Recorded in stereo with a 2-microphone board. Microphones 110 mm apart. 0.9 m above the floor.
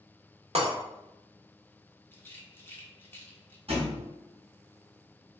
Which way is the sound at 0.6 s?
70° right (ahead or behind).